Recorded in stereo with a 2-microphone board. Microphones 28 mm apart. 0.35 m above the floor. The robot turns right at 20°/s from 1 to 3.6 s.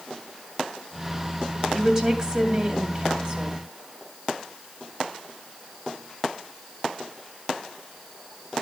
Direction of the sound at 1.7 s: 150° right.